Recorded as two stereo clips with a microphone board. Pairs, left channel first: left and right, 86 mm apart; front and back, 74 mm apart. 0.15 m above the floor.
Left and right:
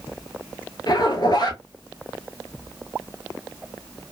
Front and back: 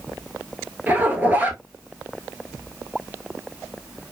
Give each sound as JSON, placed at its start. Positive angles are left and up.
{"t": 0.9, "sound": "a zipper", "azimuth_deg": 115, "distance_m": 0.9}